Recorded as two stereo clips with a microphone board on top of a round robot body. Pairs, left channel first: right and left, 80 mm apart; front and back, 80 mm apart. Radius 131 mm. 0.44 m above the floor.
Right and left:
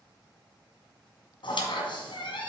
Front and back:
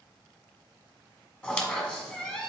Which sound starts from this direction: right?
A squeak, at 1.4 s.